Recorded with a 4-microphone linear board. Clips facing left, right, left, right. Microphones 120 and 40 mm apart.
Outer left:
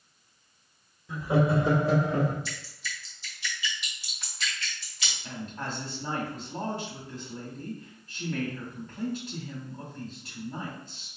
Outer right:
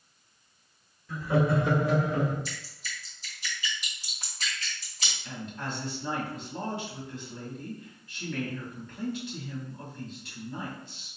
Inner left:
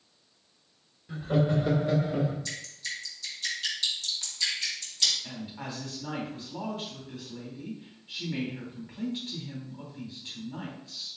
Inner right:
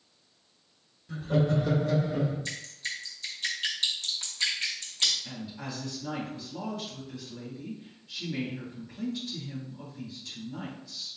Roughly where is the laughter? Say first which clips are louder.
Outer left 1 dB, even; left.